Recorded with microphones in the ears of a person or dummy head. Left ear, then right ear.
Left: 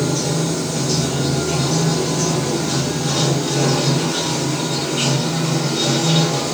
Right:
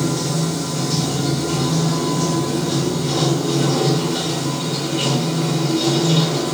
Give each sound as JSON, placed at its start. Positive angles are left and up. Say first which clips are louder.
{"t": 0.0, "sound": "running water", "louder": "left 2 dB", "side_deg": 80, "distance_m": 1.3}